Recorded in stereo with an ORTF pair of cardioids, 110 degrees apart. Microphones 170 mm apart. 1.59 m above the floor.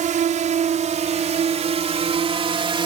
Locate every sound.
0.0 s a drone: 50° right; by 2.9 s 30° right